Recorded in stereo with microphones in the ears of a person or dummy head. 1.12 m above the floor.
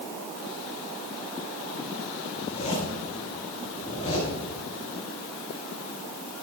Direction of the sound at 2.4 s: 35° left (ahead or behind).